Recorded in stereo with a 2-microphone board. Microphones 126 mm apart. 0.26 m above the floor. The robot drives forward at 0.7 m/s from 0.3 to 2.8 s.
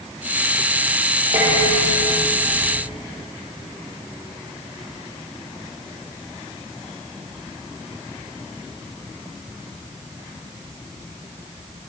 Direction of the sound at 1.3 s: 65° right (ahead or behind).